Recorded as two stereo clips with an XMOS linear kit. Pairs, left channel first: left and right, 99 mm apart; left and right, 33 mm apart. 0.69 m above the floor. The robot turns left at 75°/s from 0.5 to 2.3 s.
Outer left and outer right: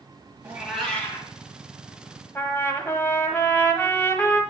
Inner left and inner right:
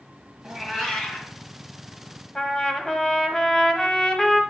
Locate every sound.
0.4 s a cat meowing: 155° right, 2 m; by 1.3 s 145° left, 2 m
2.4 s a trumpet: 25° left (ahead or behind), 1.0 m